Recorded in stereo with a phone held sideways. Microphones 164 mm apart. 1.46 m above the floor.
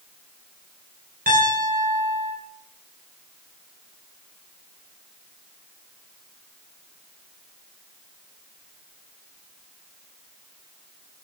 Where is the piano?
65° right (ahead or behind), 3 m.